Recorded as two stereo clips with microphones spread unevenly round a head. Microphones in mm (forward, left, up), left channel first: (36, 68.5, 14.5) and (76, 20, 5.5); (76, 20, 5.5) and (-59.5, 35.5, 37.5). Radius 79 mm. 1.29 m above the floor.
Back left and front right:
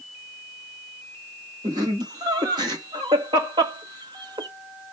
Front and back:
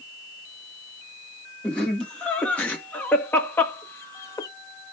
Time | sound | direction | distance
1.6 | laughter | 90° right | 2.5 m